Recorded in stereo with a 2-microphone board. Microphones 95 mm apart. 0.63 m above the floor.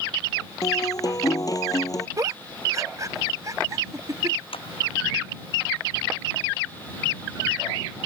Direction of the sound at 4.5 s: 75° left (ahead or behind).